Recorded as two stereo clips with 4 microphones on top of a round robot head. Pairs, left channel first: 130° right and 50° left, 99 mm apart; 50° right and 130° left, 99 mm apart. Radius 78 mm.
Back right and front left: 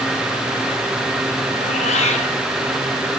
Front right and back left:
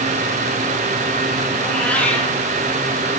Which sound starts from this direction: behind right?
A cat meowing, at 1.6 s.